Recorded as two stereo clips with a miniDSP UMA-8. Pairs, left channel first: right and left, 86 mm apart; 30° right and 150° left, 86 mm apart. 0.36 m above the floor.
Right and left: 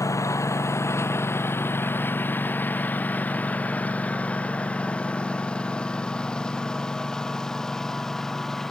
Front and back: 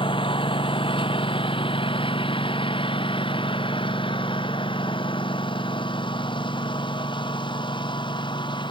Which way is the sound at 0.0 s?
35° right.